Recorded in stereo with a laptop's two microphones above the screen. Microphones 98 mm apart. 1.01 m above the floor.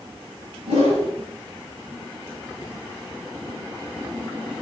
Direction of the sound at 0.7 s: 85° right.